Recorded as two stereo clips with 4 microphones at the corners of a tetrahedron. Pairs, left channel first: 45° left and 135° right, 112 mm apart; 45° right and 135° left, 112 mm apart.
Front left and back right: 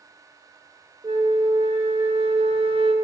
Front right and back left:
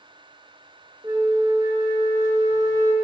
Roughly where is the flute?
Behind.